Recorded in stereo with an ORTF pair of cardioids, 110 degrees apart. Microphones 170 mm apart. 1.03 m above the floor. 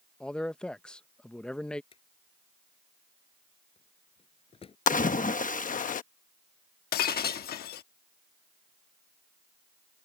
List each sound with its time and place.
0.2 s a man speaking: 5° left
1.9 s a drawer: 35° left
4.9 s a splash: 50° left
6.9 s breaking glass: 65° left